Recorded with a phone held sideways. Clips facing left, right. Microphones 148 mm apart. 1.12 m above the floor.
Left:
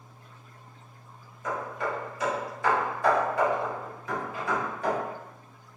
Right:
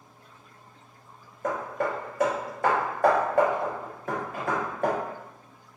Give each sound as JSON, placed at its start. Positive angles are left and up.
{"t": 1.4, "sound": "hammering", "side_deg": -55, "distance_m": 0.7}